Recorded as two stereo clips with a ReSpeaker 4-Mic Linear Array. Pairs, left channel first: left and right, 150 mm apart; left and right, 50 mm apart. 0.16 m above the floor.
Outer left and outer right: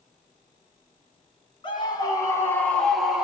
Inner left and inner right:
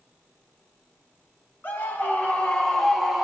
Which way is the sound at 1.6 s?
35° left (ahead or behind).